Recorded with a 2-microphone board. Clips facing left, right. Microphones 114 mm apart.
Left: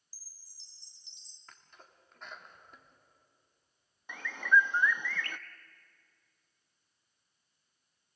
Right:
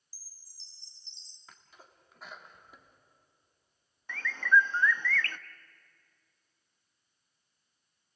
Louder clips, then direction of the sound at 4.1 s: Right 1 dB; 15° left (ahead or behind).